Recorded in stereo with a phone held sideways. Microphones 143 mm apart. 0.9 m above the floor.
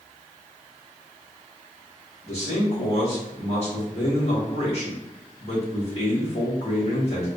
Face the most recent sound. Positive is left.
turn(degrees=45)  # may be behind; listen again after turning